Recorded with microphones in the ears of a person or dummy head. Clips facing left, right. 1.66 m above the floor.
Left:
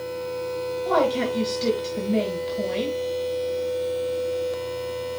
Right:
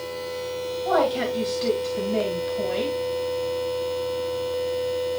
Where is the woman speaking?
40° left (ahead or behind), 2.5 m.